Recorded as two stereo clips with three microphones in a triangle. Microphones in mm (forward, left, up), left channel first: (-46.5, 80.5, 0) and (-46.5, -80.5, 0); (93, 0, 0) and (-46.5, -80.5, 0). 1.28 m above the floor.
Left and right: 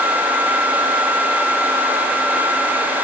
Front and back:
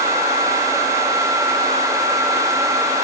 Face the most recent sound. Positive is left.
No sound to turn to.